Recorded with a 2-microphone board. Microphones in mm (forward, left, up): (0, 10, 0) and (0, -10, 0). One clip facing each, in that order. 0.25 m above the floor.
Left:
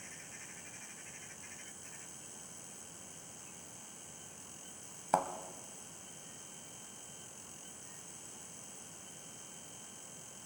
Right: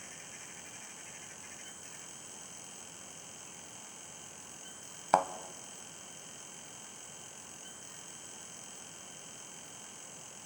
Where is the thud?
25° right (ahead or behind), 0.7 m.